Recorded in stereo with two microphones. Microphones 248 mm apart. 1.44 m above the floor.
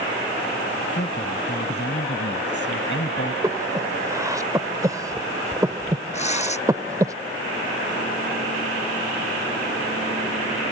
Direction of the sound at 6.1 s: 25° left (ahead or behind).